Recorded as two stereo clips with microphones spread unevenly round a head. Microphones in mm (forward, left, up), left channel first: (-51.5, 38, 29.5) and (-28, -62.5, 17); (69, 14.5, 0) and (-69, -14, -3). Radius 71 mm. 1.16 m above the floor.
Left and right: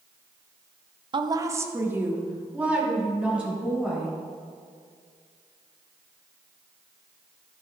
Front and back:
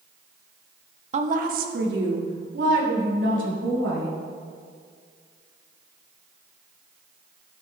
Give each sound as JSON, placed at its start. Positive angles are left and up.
{"t": 1.1, "sound": "a woman speaking", "azimuth_deg": -120, "distance_m": 0.9}